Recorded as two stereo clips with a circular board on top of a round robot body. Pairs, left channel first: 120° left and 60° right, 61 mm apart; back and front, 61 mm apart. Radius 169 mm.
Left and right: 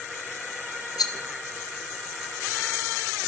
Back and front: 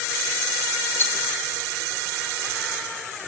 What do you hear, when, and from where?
1.0 s a rattle: 130° left, 1.8 m